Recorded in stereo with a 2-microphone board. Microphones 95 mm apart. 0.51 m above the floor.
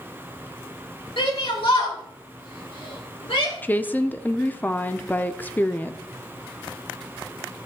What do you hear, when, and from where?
1.2 s a shout: 70° left (ahead or behind), 7.5 m; by 3.5 s 80° left, 8.5 m
3.6 s a woman speaking: 20° left (ahead or behind), 0.6 m